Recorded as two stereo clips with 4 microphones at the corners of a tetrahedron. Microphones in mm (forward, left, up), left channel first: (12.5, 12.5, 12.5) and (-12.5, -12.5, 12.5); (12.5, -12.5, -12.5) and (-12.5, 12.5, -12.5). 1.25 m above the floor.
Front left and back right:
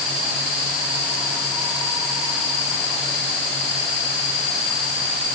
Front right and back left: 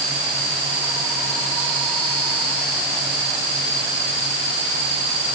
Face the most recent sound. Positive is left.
No sound to turn to.